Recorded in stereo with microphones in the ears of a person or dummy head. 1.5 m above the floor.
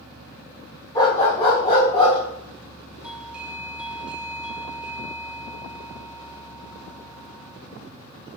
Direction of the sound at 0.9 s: 15° left (ahead or behind).